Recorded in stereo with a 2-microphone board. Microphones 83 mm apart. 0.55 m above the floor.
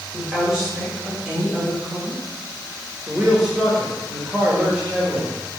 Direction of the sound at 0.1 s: 10° right (ahead or behind).